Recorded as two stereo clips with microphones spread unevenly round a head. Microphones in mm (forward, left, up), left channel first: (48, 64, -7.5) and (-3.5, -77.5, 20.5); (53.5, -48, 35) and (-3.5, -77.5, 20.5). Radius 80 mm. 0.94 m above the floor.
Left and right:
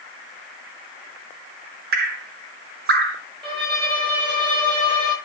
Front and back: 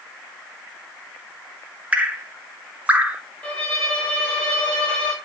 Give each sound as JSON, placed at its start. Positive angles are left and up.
{"t": 1.9, "sound": "dripping", "azimuth_deg": -95, "distance_m": 1.4}
{"t": 3.4, "sound": "a violin", "azimuth_deg": -50, "distance_m": 5.0}